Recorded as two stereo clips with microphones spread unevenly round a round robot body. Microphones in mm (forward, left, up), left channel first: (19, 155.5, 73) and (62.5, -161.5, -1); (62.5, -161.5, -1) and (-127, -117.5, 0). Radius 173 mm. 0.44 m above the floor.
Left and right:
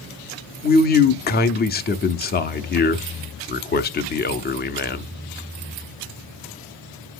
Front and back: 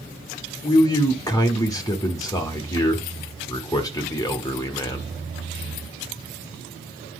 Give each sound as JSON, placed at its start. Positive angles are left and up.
{"t": 0.6, "sound": "a man speaking", "azimuth_deg": 40, "distance_m": 0.9}